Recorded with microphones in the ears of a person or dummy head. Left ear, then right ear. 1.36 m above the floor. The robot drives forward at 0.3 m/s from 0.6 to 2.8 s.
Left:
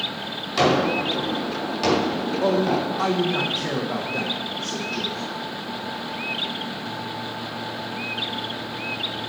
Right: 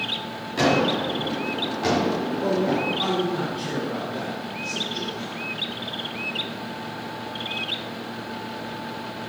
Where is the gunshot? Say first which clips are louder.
Left 1 dB; 35° left (ahead or behind), 4 m; by 3.0 s 45° left (ahead or behind), 3.5 m.